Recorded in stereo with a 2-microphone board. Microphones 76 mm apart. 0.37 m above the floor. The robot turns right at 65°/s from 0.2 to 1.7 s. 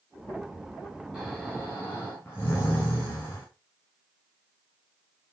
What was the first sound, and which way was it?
Snoring, 10° right.